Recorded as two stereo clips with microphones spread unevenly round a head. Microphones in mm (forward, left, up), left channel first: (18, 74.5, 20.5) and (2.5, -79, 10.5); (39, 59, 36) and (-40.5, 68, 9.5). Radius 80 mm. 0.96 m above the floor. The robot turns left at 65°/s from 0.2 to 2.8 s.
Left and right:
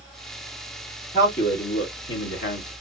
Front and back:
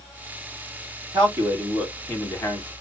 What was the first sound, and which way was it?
A man speaking, 140° left.